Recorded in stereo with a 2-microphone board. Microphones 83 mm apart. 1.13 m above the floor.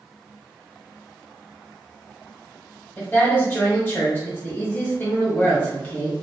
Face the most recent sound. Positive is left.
turn(degrees=25)  # may be behind; listen again after turning